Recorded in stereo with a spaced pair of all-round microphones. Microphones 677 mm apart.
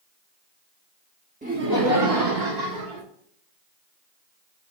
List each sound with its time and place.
1.4 s laughter: 10° right (ahead or behind), 0.6 m; by 3.0 s 80° right, 1.2 m